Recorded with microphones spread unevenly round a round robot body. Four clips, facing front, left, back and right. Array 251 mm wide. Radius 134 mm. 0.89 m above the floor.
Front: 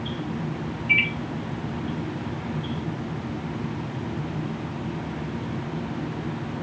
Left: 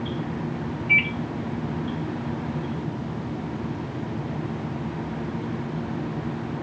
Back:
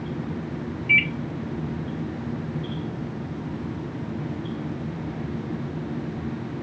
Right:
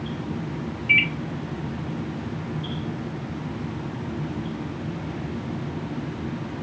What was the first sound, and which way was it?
A microwave, 120° right.